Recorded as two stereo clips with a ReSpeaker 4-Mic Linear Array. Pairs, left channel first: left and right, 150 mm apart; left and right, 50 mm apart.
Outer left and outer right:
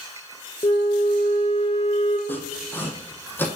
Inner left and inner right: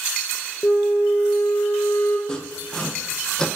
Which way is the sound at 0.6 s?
35° left (ahead or behind).